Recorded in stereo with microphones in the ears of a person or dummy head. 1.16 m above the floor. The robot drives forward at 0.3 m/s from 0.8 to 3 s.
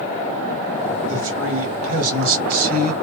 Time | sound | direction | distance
1.1 | a man speaking | 65° right (ahead or behind) | 2.0 m